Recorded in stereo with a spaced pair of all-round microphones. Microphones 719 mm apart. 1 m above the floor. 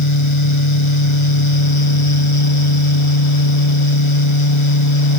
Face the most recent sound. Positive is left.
turn(degrees=40)  # may be behind; listen again after turning